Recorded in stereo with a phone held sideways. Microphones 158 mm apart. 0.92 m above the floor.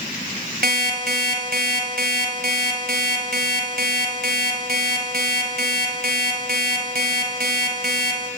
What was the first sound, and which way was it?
An alarm clock, 75° right (ahead or behind).